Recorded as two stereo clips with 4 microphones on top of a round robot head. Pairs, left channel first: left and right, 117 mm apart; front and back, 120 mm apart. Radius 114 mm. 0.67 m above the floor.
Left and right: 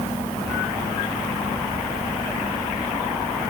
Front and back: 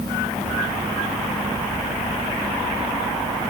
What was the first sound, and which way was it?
Only background noise.